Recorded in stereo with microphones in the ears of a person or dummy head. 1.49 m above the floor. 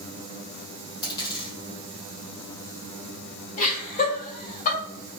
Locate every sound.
1.0 s a dropped coin: 25° left (ahead or behind), 1.7 m
3.6 s laughter: 45° left (ahead or behind), 1.6 m